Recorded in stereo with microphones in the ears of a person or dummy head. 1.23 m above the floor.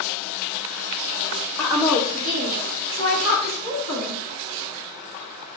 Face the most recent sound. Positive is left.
turn(degrees=-85)